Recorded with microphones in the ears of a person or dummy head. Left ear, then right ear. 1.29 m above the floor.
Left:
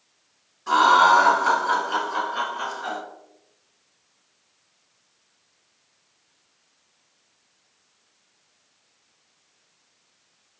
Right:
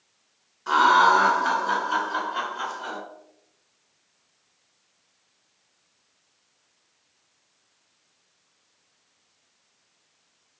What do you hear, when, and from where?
0.7 s laughter: 40° right (ahead or behind), 1.6 m; by 3.0 s 65° right (ahead or behind), 2.5 m